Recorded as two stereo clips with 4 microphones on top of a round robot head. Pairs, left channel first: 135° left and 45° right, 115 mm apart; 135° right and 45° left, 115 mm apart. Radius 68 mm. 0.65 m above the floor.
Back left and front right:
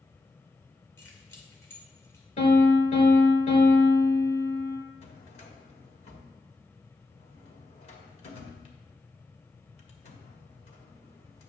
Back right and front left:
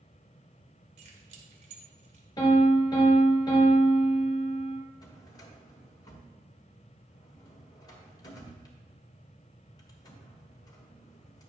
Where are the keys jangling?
65° left, 1.7 m.